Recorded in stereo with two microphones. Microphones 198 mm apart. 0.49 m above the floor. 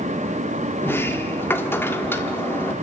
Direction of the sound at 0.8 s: 10° left (ahead or behind).